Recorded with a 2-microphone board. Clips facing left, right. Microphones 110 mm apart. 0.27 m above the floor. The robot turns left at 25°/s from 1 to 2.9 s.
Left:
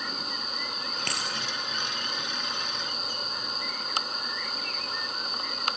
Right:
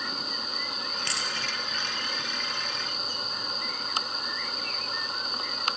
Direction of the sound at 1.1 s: 50° left (ahead or behind).